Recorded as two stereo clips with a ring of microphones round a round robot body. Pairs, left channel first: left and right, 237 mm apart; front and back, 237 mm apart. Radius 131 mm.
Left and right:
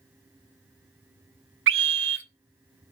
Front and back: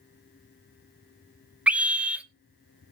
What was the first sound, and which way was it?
A scream, 95° right.